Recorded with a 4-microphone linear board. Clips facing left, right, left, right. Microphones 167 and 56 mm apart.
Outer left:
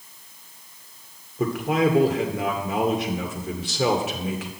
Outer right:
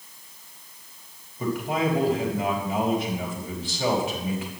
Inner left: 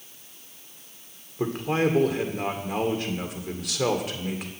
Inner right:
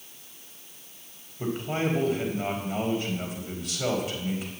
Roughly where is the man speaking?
Left.